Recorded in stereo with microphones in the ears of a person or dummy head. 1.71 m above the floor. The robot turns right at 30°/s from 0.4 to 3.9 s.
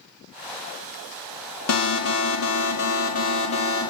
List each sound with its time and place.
1.7 s an alarm: 90° left, 2.5 m; by 3.9 s 155° left, 2.5 m